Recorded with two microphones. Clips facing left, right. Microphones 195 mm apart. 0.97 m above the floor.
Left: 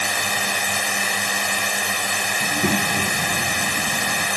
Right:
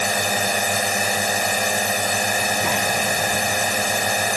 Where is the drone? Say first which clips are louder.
Right 5 dB; 45° right (ahead or behind).